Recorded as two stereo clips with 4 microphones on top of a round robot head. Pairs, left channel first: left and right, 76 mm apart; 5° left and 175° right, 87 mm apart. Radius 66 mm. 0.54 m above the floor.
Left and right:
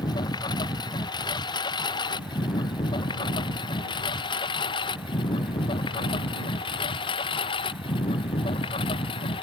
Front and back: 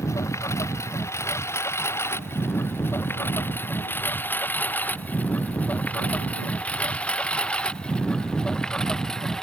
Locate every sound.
0.0 s a lawn mower: 65° left; by 9.4 s 90° left